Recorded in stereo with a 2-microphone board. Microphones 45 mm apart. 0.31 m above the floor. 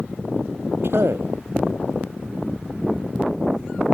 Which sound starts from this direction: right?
A man speaking, at 0.8 s.